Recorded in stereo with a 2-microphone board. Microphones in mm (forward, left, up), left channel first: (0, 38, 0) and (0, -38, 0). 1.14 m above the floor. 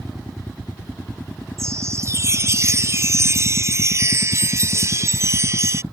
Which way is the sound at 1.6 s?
40° right (ahead or behind).